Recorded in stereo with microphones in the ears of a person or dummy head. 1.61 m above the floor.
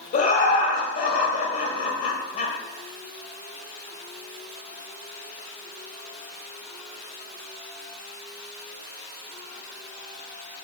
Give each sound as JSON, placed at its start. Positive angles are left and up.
{"t": 0.1, "sound": "laughter", "side_deg": 50, "distance_m": 0.8}